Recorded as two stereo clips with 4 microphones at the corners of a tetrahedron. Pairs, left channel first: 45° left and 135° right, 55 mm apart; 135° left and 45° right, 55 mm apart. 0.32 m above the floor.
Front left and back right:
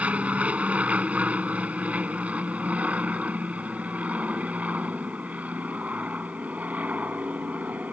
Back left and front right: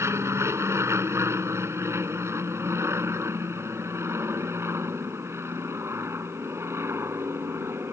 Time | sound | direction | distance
0.0 | an aircraft | 70° right | ?